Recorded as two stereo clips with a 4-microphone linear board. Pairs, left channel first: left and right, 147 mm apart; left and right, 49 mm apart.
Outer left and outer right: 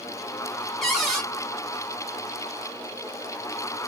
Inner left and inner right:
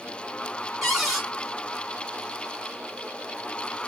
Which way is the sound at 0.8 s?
Centre (ahead or behind).